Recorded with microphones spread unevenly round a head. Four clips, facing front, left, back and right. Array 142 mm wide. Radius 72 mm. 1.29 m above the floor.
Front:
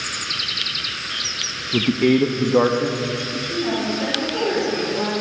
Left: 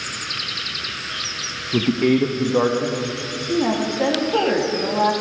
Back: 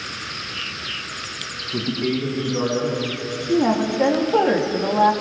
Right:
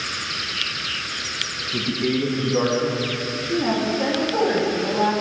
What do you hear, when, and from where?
1.7 s a man speaking: 40° left, 1.0 m; by 3.4 s 10° left, 2 m
3.5 s a woman speaking: 160° left, 2.5 m